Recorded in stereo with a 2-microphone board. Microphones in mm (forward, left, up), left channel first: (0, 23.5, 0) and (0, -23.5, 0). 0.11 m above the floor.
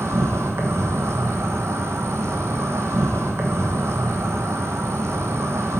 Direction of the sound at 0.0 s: 75° right (ahead or behind).